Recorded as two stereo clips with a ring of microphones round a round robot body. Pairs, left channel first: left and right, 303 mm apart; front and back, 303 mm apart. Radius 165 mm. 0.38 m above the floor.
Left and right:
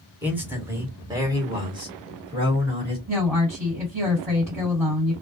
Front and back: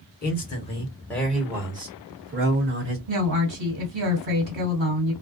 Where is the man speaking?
10° right, 1.2 m; by 3.0 s 155° right, 1.5 m.